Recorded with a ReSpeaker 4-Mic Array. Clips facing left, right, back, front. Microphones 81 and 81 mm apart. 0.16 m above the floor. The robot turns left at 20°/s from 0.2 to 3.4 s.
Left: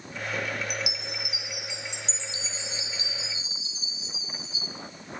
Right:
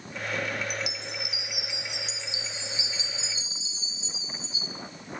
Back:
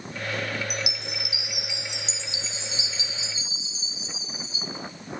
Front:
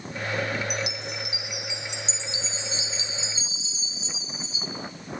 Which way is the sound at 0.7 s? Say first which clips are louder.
Even, front 2 dB; 10° left.